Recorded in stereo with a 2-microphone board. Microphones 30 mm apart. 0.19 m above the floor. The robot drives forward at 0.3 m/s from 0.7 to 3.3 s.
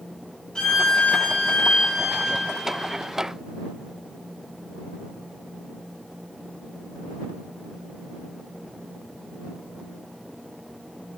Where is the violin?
25° left (ahead or behind), 1.0 m.